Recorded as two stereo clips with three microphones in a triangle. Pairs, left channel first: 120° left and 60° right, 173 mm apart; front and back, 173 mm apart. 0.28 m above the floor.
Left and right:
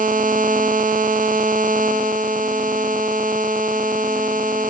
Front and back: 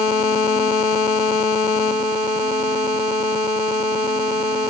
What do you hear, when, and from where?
Only background noise.